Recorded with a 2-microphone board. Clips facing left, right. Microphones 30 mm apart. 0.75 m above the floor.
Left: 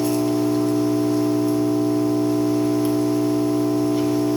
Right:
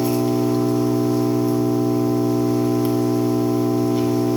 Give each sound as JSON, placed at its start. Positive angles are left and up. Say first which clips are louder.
{"t": 0.0, "sound": "an engine running", "louder": "right 1 dB", "side_deg": -10, "distance_m": 1.4}